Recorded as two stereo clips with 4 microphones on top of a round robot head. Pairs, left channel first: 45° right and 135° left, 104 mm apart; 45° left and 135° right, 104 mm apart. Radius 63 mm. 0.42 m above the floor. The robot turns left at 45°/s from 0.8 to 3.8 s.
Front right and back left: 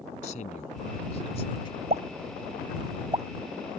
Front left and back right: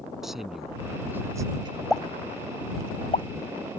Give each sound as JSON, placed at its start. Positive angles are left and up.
{"t": 0.2, "sound": "a man speaking", "azimuth_deg": -50}
{"t": 1.9, "sound": "a pop", "azimuth_deg": 135}